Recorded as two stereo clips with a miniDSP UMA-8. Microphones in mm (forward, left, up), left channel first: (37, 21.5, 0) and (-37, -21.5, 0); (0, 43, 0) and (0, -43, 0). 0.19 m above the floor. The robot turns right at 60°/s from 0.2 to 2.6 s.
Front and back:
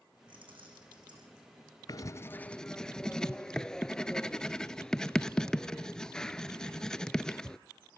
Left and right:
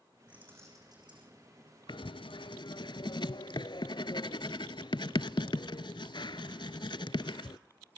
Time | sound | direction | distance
0.3 | keys jangling | 170° right | 7 m
1.9 | writing | 70° left | 0.6 m